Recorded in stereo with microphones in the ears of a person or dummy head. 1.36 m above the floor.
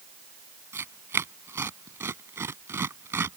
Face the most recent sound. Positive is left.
turn(degrees=-10)  # may be behind; listen again after turning